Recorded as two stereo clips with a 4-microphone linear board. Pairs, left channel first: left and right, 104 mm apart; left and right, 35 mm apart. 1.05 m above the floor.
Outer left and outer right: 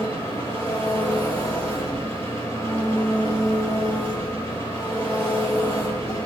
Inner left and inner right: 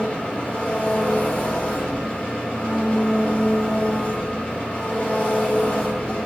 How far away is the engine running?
About 4.5 m.